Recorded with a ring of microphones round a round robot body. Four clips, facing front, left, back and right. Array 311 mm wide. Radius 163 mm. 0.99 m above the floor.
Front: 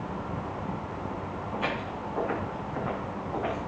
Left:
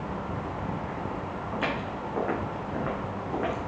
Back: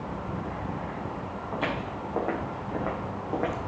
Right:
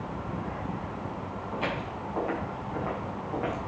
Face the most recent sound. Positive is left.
turn(degrees=165)